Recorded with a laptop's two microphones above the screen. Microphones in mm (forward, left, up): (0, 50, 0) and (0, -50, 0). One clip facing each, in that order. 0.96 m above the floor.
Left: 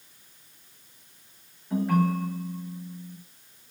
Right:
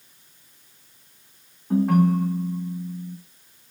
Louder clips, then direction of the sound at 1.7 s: Right 5 dB; 75° right (ahead or behind).